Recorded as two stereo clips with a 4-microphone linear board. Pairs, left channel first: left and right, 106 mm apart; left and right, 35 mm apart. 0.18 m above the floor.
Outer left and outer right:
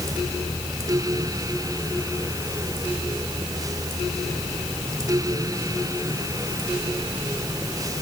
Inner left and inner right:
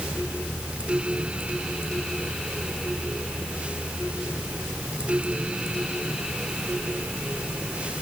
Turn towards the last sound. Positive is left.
No sound to turn to.